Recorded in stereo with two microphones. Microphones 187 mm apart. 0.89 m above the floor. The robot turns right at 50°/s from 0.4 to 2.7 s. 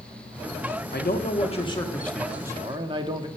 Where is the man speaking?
115° left, 1.3 m; by 3.3 s 155° right, 1.3 m.